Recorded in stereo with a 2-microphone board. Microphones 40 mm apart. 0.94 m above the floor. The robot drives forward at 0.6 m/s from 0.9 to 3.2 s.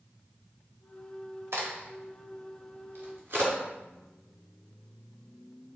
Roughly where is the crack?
Right.